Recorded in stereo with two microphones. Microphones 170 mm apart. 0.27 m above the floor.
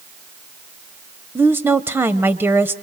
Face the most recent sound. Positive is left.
turn(degrees=-15)  # may be behind; listen again after turning